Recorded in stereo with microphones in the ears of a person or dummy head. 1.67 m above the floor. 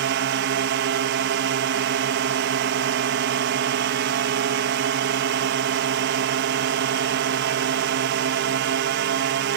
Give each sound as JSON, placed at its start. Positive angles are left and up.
{"t": 0.0, "sound": "a drone", "side_deg": -55}